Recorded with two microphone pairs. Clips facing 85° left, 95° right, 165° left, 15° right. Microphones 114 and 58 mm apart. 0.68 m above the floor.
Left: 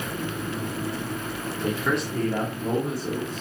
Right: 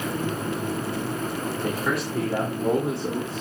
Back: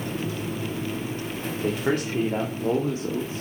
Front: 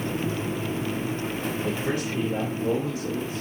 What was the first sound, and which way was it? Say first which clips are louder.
A man speaking: left 3 dB, back 6 dB; 170° left.